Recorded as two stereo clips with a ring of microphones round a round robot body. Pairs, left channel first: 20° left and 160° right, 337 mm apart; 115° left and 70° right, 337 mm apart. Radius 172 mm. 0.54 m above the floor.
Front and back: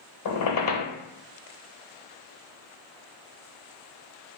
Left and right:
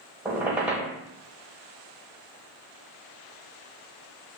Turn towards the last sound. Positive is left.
turn(degrees=15)